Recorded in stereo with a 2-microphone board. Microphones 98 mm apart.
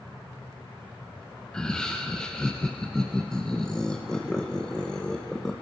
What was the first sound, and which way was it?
Laughter, 10° left (ahead or behind).